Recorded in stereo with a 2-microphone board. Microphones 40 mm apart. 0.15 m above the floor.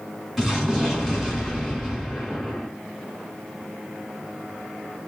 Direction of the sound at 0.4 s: 10° right (ahead or behind).